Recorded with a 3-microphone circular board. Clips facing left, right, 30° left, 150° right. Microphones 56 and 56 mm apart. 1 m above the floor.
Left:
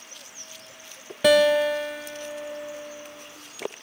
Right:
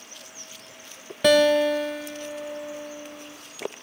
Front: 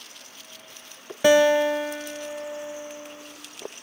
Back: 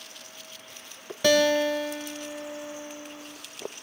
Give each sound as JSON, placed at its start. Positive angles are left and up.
{"t": 1.2, "sound": "a guitar", "azimuth_deg": 5, "distance_m": 0.8}